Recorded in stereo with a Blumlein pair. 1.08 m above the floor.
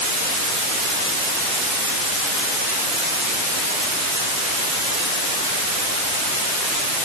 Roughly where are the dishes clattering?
I don't hear dishes clattering.